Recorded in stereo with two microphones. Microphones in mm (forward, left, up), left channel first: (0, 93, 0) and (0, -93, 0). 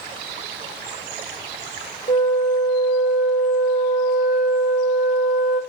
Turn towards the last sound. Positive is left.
turn(degrees=35)  # may be behind; listen again after turning